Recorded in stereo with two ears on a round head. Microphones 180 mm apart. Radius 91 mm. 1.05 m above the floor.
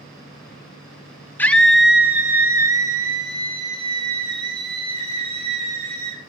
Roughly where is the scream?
Centre.